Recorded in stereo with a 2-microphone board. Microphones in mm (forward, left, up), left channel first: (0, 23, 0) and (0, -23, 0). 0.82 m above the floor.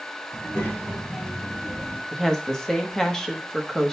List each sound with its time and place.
0.3 s a child speaking: 80° left, 4 m; by 2.0 s 55° left (ahead or behind), 2.5 m
2.1 s a woman speaking: 10° left (ahead or behind), 1.2 m